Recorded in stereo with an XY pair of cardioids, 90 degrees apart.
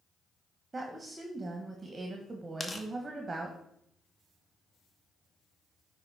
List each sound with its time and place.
0.7 s a woman speaking: 30° right, 1.2 m
2.6 s tearing paper: 20° left, 1.0 m